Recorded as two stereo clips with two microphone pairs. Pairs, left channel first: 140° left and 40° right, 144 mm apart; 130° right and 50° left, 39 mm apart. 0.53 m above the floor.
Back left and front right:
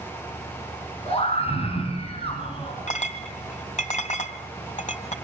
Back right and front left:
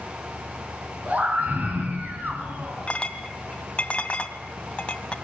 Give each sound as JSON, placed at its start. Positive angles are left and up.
{"t": 1.1, "sound": "a scream", "azimuth_deg": 100, "distance_m": 5.5}
{"t": 2.9, "sound": "a clink", "azimuth_deg": 170, "distance_m": 1.9}